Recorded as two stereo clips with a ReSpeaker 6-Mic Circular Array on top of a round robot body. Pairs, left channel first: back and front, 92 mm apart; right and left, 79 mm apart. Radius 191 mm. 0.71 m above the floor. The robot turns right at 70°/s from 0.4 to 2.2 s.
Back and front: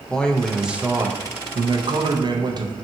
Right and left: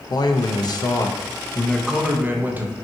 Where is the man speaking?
100° right, 0.6 m; by 2.7 s 25° left, 0.6 m.